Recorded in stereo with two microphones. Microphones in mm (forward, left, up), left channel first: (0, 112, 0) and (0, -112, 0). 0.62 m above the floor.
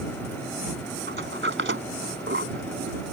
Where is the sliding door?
60° right (ahead or behind).